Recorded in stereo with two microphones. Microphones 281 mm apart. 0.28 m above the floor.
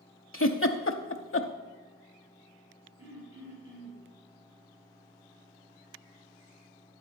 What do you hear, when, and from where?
0.3 s a giggle: 50° left (ahead or behind), 0.8 m
3.0 s throat clearing: 10° right (ahead or behind), 5 m